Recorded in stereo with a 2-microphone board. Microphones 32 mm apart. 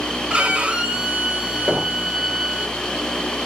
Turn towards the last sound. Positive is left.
turn(degrees=-40)  # may be behind; listen again after turning